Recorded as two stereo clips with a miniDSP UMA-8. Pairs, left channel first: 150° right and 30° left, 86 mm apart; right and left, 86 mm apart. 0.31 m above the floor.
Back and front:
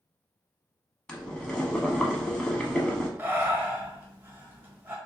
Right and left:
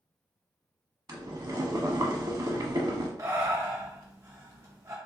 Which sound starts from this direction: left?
Breathing, at 3.2 s.